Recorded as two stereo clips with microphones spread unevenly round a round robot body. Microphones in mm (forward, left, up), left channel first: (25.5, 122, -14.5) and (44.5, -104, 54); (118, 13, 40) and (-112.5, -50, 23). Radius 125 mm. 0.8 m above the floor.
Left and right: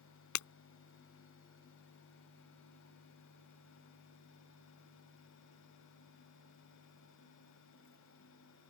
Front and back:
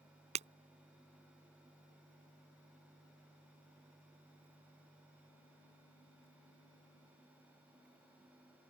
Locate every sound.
0.3 s breaking glass: 130° left